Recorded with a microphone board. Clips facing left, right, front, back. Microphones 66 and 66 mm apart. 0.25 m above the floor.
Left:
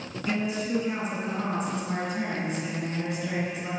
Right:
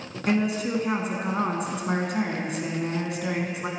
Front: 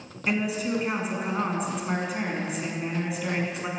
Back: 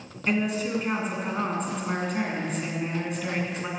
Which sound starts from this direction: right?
A woman speaking, at 0.3 s.